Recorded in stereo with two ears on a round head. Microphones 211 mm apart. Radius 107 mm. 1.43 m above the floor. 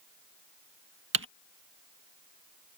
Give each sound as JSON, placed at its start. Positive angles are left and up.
{"t": 1.1, "sound": "typing on a keyboard", "side_deg": -55}